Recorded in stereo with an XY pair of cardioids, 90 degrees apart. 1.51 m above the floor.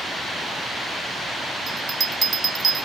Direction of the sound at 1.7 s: 50° right.